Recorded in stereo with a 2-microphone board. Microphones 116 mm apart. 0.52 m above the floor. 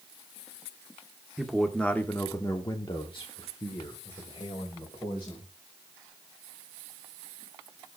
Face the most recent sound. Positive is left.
turn(degrees=55)  # may be behind; listen again after turning